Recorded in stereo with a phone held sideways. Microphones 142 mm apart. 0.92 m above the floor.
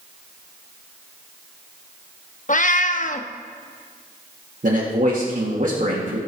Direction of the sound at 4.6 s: 60° right (ahead or behind).